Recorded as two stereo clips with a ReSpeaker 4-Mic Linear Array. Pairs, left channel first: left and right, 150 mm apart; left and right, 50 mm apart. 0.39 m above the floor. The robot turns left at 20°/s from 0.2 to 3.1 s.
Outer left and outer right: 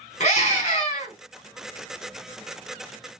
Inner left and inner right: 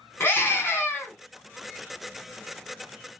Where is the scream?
45° left (ahead or behind), 2 m; by 1.1 s 35° left (ahead or behind), 2 m.